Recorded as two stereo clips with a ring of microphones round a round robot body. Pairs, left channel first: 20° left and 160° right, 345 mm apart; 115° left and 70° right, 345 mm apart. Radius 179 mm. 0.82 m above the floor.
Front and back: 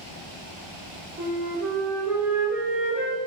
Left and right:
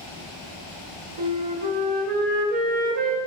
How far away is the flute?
About 0.6 m.